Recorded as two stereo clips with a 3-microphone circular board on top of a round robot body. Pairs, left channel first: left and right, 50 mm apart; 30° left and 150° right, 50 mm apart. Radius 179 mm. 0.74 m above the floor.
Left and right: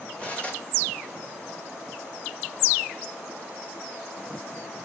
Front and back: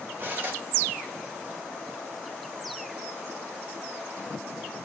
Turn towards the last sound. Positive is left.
turn(degrees=155)